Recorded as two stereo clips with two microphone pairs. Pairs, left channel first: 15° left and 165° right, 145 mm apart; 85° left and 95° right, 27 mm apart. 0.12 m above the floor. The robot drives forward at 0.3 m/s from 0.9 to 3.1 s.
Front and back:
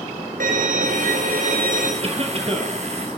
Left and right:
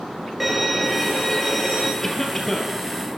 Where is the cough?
155° left, 2.5 m; by 2.8 s 160° left, 2.5 m.